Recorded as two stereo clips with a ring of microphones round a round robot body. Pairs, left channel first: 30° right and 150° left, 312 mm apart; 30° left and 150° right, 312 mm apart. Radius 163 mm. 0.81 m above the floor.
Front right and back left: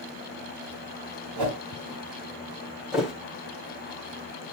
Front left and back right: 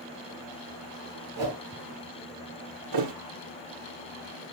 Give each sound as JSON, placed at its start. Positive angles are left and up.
{"t": 1.4, "sound": "a whoosh", "azimuth_deg": 170, "distance_m": 3.0}
{"t": 2.9, "sound": "a thud", "azimuth_deg": -120, "distance_m": 1.8}